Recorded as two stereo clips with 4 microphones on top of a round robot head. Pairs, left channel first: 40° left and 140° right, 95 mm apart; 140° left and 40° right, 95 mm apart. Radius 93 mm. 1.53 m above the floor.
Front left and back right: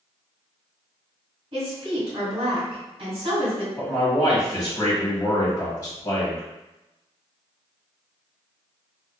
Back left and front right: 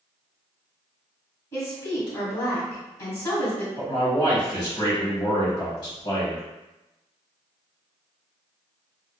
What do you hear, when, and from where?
1.5 s a woman speaking: 165° right, 1.6 m
3.8 s a man speaking: 100° left, 1.3 m